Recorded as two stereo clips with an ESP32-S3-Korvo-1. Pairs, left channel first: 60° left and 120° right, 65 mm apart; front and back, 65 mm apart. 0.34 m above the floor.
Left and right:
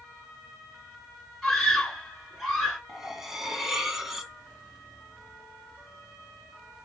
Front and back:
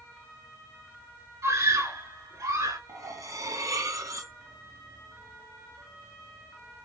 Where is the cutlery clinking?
160° left, 1.5 m.